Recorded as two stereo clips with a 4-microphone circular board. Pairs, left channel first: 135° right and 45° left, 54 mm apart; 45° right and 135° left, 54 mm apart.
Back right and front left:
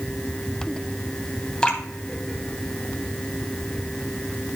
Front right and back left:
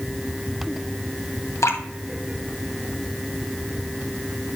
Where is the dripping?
60° right, 1.6 m.